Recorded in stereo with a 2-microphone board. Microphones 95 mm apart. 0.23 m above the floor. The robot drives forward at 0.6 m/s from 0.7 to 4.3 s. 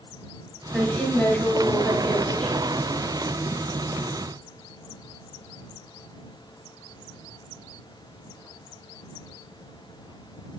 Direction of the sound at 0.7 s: 5° left (ahead or behind).